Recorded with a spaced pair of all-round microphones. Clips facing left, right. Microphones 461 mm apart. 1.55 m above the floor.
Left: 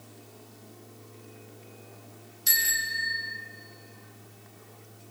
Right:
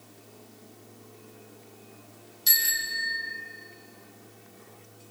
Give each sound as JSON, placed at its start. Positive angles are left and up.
{"t": 2.5, "sound": "a bicycle bell", "side_deg": -55, "distance_m": 3.5}